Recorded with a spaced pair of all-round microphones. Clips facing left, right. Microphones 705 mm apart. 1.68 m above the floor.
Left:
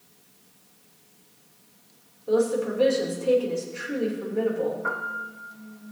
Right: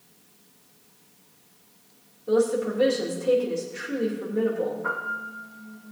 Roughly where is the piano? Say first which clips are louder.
Even; right.